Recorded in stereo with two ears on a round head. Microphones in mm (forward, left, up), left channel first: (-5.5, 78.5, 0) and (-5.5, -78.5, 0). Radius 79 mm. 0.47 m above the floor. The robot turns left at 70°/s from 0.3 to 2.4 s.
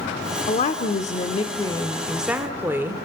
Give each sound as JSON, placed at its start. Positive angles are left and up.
{"t": 0.5, "sound": "a woman speaking", "azimuth_deg": 115, "distance_m": 1.3}